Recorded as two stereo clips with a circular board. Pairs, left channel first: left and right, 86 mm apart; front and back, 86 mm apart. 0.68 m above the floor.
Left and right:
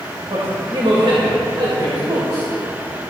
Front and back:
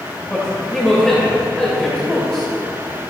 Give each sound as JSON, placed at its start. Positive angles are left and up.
{"t": 0.3, "sound": "a man speaking", "azimuth_deg": -80, "distance_m": 3.5}